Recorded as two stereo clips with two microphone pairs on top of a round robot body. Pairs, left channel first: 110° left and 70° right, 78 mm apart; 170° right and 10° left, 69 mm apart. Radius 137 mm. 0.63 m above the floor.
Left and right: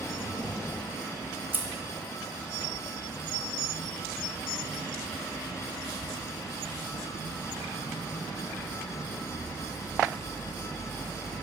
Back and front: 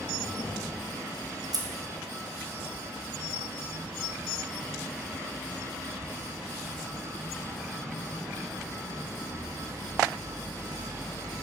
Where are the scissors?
5° right, 0.9 m.